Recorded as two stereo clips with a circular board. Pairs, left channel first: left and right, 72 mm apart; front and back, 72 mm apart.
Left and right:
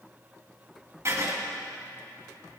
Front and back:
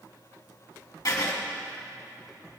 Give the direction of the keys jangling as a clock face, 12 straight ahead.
No keys jangling in this recording.